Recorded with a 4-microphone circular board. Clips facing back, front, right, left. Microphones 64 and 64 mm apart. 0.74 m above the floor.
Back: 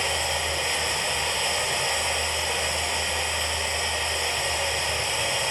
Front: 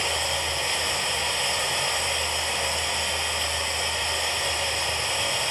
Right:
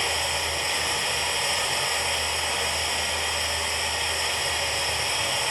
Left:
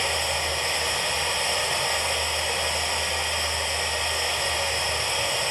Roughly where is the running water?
Left.